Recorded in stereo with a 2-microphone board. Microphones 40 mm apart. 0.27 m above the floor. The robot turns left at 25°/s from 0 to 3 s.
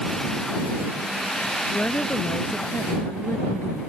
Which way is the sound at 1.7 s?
140° left.